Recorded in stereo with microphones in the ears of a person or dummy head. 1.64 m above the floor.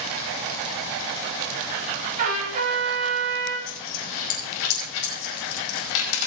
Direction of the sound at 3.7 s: 80° left.